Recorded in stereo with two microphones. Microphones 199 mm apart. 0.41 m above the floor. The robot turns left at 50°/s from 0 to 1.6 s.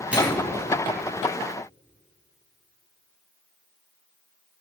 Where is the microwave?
5° right (ahead or behind), 2.0 m; by 0.5 s 10° left (ahead or behind), 2.0 m.